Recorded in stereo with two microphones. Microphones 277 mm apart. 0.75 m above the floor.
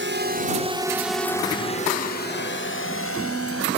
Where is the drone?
45° right (ahead or behind); by 3.8 s 55° left (ahead or behind).